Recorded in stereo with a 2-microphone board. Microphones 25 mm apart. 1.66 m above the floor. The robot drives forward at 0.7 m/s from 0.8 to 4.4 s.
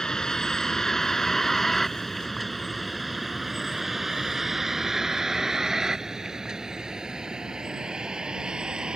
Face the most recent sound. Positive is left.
turn(degrees=-30)  # may be behind; listen again after turning